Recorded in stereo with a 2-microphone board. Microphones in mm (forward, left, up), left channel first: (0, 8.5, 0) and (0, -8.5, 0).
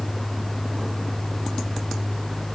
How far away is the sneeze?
I don't hear a sneeze.